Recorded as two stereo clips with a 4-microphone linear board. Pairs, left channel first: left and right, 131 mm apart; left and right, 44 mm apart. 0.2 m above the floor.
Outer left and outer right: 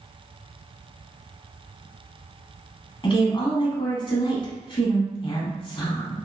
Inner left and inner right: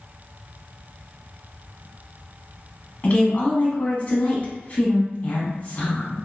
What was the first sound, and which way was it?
A woman speaking, 40° left (ahead or behind).